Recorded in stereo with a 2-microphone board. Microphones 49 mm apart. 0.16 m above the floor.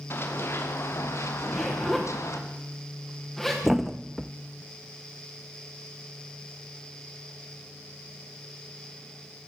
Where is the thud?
Centre (ahead or behind), 0.9 m.